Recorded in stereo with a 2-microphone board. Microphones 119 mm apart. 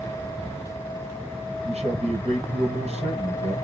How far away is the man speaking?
About 3 m.